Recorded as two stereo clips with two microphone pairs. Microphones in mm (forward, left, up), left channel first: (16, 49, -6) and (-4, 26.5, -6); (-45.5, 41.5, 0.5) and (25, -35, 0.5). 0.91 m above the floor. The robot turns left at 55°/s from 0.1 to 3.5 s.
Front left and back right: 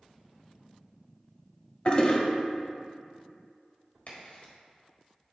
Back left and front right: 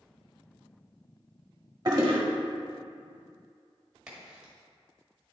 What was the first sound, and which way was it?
A toilet flushing, straight ahead.